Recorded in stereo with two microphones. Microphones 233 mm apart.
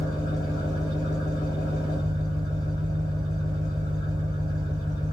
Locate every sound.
0.0 s an engine running: 20° right (ahead or behind), 3.5 m